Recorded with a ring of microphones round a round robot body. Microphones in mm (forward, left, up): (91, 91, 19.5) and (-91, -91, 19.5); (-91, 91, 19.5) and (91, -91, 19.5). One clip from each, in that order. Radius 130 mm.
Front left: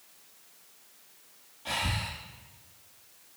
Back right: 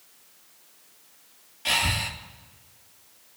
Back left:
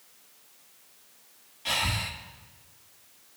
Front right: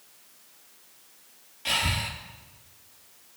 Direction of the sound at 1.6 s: 125° right.